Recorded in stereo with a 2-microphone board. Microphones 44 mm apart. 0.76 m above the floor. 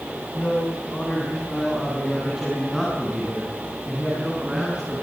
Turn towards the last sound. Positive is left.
turn(degrees=-25)  # may be behind; listen again after turning